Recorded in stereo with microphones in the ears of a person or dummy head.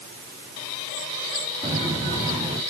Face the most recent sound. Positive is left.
turn(degrees=-15)  # may be behind; listen again after turning